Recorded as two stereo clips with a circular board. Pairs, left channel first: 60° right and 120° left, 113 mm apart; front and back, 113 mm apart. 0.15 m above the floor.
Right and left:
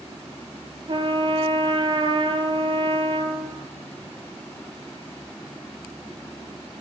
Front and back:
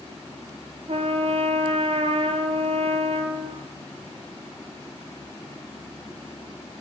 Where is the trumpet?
160° left, 0.6 m.